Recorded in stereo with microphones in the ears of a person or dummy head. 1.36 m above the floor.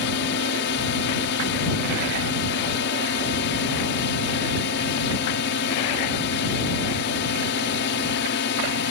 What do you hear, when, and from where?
0.0 s a drone: 60° left (ahead or behind)